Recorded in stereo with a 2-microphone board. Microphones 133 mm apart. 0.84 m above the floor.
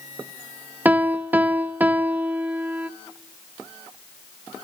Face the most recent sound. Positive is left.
turn(degrees=-15)  # may be behind; listen again after turning